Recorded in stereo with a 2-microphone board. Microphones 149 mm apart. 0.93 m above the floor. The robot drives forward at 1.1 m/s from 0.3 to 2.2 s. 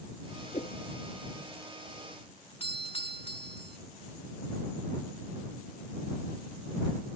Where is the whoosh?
45° left (ahead or behind); by 0.8 s 50° left (ahead or behind).